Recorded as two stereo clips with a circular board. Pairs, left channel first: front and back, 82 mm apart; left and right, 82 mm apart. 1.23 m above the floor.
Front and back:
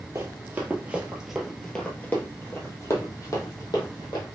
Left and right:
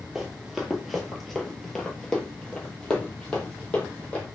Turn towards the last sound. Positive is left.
turn(degrees=15)